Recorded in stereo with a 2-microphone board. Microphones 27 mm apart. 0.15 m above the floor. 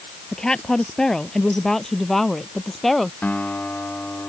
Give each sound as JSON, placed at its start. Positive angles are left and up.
{"t": 0.3, "sound": "a woman speaking", "side_deg": 25}
{"t": 3.2, "sound": "a guitar", "side_deg": 80}